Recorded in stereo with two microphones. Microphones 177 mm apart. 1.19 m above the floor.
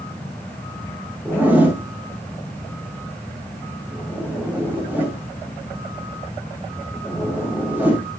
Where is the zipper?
10° right (ahead or behind), 3.5 m.